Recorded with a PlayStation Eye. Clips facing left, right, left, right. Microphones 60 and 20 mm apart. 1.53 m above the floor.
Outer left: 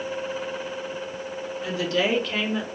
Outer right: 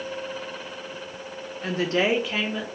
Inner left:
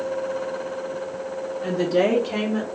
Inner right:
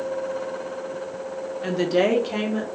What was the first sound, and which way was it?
A woman speaking, 50° right (ahead or behind).